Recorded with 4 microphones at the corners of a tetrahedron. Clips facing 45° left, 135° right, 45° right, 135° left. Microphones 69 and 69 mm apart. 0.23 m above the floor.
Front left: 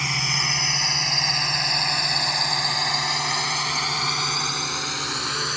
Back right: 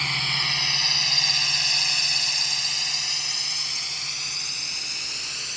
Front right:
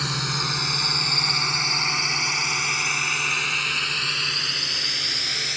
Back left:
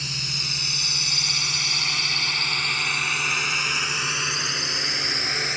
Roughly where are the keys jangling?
I don't hear keys jangling.